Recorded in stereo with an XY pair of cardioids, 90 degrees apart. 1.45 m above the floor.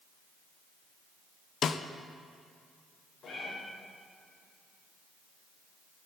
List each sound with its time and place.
1.6 s a snare drum: 65° left, 0.6 m
3.2 s a cat meowing: 60° left, 3.5 m